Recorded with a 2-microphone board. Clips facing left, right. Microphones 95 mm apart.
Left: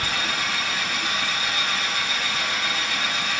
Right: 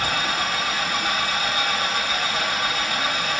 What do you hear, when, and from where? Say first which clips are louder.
0.0 s an engine running: right 3 dB; 50° right (ahead or behind), 1.9 m